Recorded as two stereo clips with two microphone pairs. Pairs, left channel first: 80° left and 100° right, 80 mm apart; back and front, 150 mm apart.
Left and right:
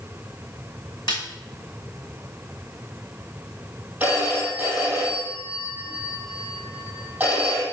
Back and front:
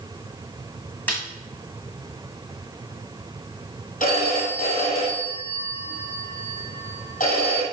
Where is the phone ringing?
165° right, 3.5 m.